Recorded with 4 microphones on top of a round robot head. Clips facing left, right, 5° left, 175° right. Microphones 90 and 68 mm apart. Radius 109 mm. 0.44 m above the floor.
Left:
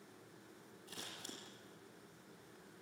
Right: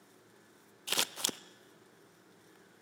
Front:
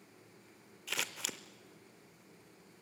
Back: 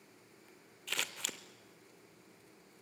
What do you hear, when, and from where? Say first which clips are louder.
0.9 s scissors: right 13 dB, even; 85° right, 0.5 m